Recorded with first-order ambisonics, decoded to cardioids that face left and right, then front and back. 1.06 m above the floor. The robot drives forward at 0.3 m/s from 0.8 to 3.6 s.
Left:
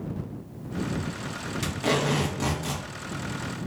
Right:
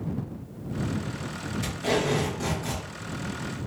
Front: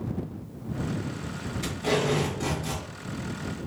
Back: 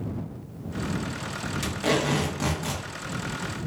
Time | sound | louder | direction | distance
1.6 | tape being pulled | even, back 1 dB | 140° left | 0.9 m